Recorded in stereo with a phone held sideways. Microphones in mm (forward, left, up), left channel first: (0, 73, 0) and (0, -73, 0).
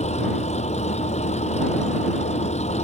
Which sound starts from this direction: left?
An engine running, at 0.0 s.